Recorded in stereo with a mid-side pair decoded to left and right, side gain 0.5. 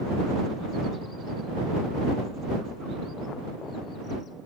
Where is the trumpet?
No trumpet in this recording.